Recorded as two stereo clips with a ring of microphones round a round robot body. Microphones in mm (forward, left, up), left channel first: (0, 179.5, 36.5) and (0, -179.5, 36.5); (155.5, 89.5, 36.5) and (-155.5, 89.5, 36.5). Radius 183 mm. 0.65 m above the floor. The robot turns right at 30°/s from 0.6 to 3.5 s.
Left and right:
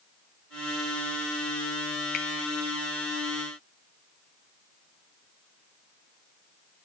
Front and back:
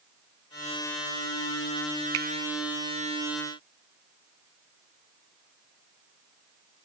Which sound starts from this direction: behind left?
A finger snap, at 2.1 s.